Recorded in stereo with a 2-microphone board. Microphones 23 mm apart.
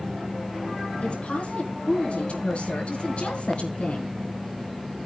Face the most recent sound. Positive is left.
turn(degrees=70)  # may be behind; listen again after turning